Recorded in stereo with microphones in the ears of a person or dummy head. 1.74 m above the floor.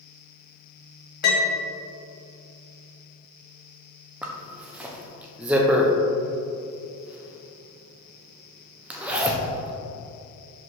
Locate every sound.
1.2 s a piano: 55° left (ahead or behind), 1.4 m
4.2 s a zipper: 5° right (ahead or behind), 0.7 m